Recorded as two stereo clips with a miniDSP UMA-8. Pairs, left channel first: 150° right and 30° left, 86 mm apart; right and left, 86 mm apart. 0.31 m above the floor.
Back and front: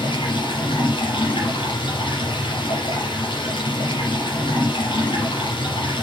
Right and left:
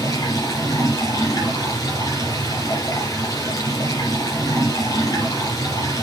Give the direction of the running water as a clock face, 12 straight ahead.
5 o'clock.